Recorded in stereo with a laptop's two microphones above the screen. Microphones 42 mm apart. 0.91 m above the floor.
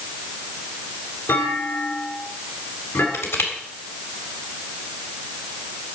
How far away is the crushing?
About 3.5 m.